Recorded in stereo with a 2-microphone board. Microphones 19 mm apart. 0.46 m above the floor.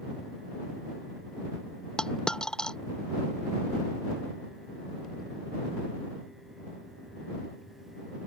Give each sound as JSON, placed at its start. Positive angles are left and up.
{"t": 2.0, "sound": "a dropped coin", "side_deg": 45}